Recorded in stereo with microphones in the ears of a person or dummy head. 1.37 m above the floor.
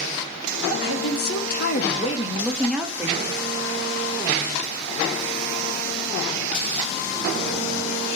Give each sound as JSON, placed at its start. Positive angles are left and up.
{"t": 0.8, "sound": "a woman speaking", "side_deg": 75, "distance_m": 1.0}